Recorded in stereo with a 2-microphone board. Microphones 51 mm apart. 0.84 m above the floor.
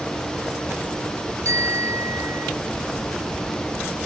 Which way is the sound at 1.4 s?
70° right (ahead or behind).